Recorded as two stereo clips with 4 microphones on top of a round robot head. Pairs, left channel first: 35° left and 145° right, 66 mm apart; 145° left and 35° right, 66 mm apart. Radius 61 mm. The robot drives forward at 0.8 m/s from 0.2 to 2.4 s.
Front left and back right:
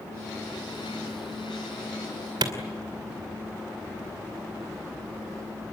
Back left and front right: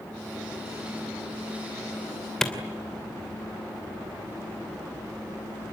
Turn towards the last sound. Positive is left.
turn(degrees=-130)